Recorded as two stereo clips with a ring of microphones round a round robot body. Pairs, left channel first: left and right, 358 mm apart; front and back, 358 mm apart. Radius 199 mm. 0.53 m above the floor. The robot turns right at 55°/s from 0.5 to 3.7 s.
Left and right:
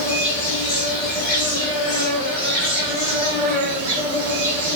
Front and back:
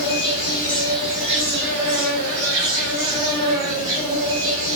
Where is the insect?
60° left, 1.7 m; by 4.8 s 120° right, 1.7 m.